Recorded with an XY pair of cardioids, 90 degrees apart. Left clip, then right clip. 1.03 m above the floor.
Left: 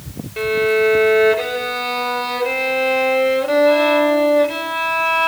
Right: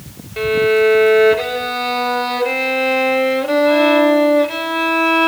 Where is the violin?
20° right, 0.8 m.